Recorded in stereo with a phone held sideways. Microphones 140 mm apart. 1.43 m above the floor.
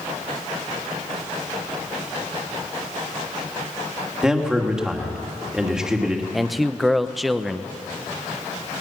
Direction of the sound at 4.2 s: 5° right (ahead or behind).